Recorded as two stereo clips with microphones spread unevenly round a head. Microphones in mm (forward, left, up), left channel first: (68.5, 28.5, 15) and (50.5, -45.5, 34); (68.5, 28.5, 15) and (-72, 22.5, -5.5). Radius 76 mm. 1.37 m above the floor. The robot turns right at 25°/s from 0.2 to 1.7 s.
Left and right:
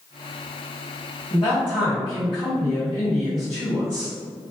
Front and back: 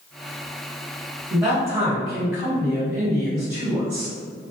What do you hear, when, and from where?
1.3 s a man speaking: 95° left, 1.7 m; by 4.1 s 105° left, 1.7 m